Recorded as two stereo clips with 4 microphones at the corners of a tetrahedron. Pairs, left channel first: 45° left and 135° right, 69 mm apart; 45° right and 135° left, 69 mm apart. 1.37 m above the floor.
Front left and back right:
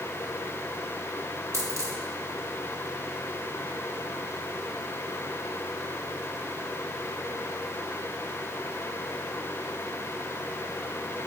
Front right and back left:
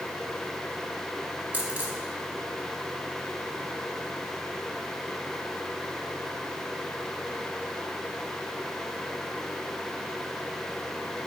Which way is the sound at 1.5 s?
165° right.